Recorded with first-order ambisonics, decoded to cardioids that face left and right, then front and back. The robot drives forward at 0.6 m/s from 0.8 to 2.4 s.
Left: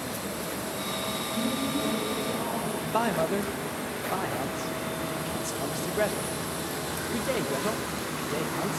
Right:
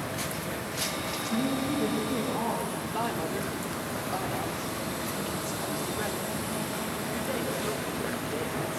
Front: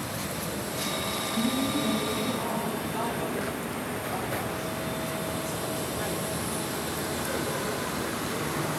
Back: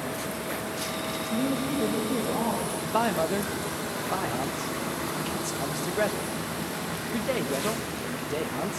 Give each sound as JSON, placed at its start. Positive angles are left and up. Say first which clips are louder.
{"t": 1.3, "sound": "a woman speaking", "louder": "right 2 dB, back 1 dB", "azimuth_deg": -170, "distance_m": 6.5}
{"t": 2.8, "sound": "a man speaking", "louder": "left 4 dB, back 5 dB", "azimuth_deg": 140, "distance_m": 2.0}